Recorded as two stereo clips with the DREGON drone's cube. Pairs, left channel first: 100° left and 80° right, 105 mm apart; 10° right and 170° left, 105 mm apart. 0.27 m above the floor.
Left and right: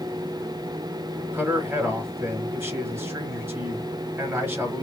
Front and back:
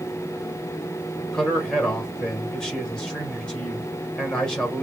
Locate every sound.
1.3 s a man speaking: 80° right, 1.3 m